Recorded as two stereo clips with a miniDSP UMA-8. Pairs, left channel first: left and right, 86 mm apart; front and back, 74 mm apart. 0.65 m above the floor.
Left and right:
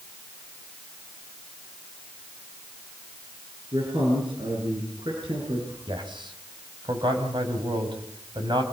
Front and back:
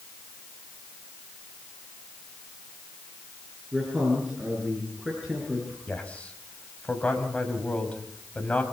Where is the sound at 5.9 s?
75° right, 5 m.